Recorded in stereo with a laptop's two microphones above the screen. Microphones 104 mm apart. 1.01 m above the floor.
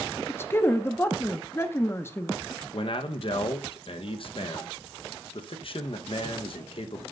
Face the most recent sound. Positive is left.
turn(degrees=55)  # may be behind; listen again after turning